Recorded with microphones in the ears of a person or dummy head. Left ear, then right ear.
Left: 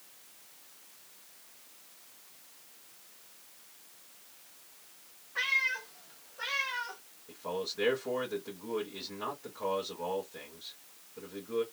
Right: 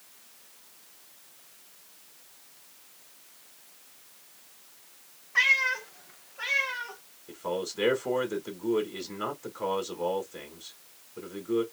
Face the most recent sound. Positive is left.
turn(degrees=-70)  # may be behind; listen again after turning